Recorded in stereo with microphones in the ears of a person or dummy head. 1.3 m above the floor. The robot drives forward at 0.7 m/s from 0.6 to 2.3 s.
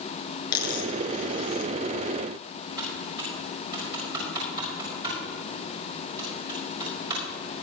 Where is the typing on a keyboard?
25° right (ahead or behind), 5.5 m.